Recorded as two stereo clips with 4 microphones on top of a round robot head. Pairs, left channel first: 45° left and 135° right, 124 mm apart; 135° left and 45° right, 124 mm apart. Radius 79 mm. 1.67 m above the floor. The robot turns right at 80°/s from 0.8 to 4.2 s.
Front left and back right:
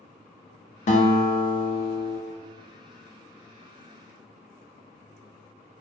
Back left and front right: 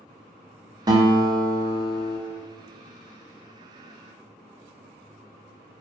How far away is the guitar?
About 0.5 m.